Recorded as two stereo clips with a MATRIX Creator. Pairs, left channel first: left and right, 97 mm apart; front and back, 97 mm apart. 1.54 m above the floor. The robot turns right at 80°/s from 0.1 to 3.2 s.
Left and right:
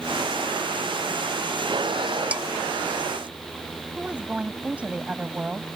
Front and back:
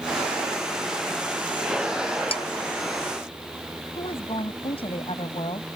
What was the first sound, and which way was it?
Dishes clattering, 15° right.